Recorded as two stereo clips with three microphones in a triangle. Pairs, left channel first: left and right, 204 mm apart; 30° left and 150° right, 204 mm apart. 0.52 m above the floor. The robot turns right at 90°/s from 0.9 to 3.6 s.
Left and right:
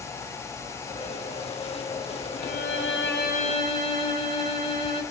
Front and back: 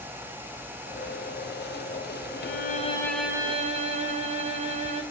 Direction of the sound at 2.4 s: 45° left.